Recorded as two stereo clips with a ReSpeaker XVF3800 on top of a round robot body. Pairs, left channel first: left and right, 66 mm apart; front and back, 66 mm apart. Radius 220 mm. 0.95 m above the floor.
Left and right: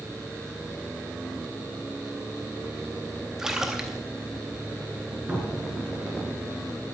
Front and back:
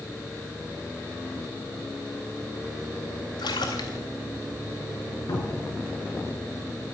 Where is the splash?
5° right, 0.6 m.